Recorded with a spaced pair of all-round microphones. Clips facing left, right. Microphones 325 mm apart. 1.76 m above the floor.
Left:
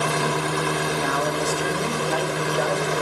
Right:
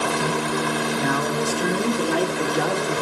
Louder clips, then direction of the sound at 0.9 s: Right 2 dB; 85° right.